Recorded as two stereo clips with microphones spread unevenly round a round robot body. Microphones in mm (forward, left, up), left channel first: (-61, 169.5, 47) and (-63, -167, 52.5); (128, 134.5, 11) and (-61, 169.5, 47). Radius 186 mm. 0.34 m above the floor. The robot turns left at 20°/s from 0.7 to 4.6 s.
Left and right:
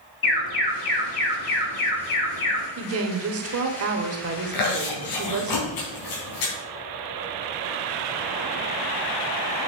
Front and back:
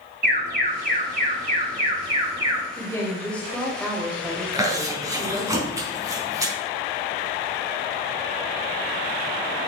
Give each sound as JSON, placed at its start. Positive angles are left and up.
{"t": 0.2, "sound": "an alarm", "azimuth_deg": 140, "distance_m": 4.0}
{"t": 2.8, "sound": "a woman speaking", "azimuth_deg": -70, "distance_m": 1.4}
{"t": 4.5, "sound": "chewing", "azimuth_deg": 95, "distance_m": 3.5}